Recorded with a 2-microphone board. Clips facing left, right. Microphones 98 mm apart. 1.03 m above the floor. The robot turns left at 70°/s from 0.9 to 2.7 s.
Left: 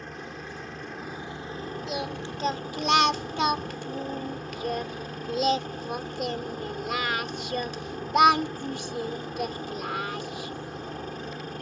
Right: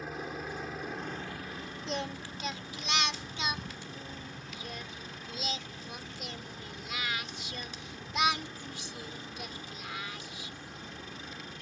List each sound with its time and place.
0.0 s a helicopter: 175° right; by 11.6 s 60° left
1.9 s singing: 175° left; by 10.5 s 120° left